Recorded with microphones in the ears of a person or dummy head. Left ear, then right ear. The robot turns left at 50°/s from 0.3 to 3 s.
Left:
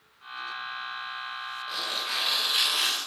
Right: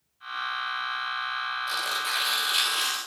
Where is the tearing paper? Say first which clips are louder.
Even; 120° right, 3 m; by 3.0 s 175° left, 3 m.